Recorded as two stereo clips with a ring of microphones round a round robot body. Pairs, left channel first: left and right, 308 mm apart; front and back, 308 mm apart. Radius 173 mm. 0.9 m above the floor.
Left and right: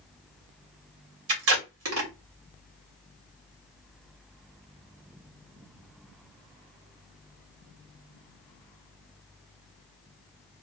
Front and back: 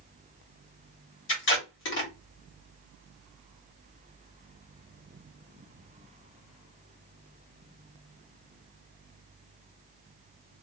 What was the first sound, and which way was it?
Tape being pulled, 50° right.